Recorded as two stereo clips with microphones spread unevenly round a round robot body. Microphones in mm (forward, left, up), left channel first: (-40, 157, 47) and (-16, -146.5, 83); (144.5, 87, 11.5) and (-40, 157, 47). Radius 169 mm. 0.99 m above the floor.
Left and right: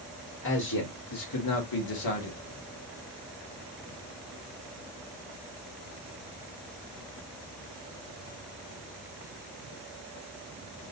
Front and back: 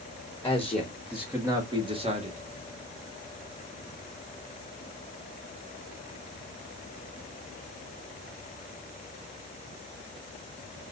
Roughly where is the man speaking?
Ahead left.